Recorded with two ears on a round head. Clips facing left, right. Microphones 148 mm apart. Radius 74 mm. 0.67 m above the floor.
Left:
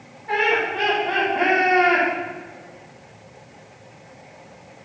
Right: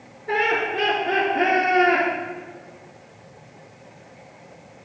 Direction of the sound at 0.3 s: 35° right (ahead or behind).